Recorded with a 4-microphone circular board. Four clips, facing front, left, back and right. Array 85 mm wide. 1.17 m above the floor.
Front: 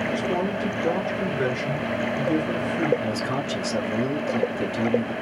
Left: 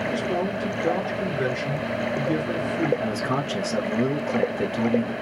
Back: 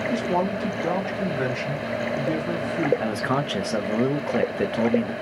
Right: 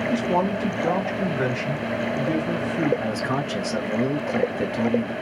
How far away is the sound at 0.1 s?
About 2 m.